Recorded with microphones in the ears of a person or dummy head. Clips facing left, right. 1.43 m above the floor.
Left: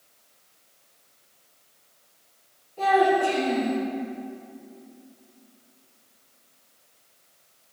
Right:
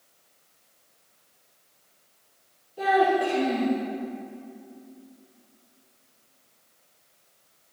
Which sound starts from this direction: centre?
A child speaking, at 2.8 s.